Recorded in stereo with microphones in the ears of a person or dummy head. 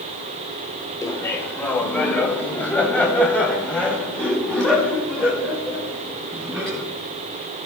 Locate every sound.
1.0 s laughter: 15° left (ahead or behind), 1.6 m; by 6.8 s 5° left (ahead or behind), 7 m